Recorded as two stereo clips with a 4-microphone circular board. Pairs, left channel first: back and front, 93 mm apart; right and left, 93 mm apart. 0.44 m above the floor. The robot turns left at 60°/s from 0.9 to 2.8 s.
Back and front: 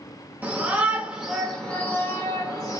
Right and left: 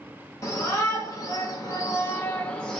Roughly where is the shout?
Ahead right.